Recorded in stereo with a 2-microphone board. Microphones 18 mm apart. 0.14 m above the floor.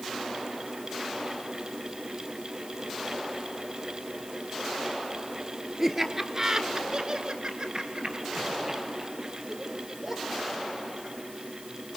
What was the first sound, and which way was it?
Laughter, 15° right (ahead or behind).